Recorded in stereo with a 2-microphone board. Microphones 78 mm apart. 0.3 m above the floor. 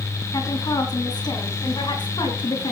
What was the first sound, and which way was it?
A woman speaking, 50° left (ahead or behind).